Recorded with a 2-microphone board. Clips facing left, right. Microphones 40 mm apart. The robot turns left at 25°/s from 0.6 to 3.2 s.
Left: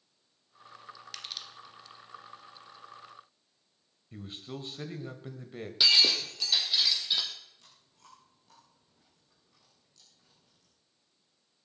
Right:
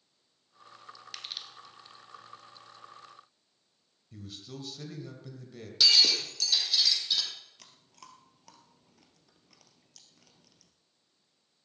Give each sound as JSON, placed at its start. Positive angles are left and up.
{"t": 1.1, "sound": "crushing", "side_deg": -5, "distance_m": 1.7}
{"t": 4.1, "sound": "a man speaking", "side_deg": 30, "distance_m": 1.7}
{"t": 5.8, "sound": "breaking glass", "side_deg": 20, "distance_m": 3.0}
{"t": 7.6, "sound": "chewing", "side_deg": -80, "distance_m": 2.5}